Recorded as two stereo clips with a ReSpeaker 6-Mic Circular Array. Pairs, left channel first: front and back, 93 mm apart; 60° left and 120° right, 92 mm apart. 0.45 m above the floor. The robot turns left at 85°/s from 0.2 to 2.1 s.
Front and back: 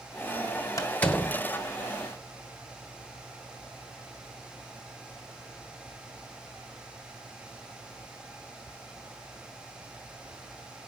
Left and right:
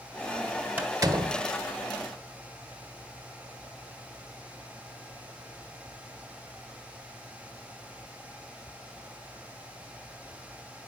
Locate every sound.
0.8 s a door slam: 50° right, 2 m; by 1.4 s 105° right, 2 m